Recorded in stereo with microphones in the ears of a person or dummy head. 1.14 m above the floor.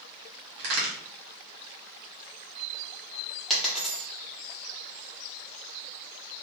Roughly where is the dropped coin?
Centre.